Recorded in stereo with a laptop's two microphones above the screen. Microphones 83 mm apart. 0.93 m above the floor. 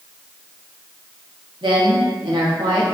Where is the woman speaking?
70° right (ahead or behind), 1.0 m.